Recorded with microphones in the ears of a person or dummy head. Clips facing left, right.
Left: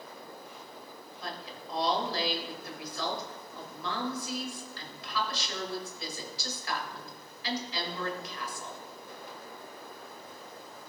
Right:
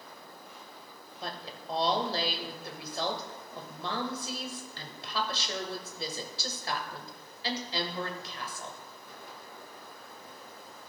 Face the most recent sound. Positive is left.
turn(degrees=-30)  # may be behind; listen again after turning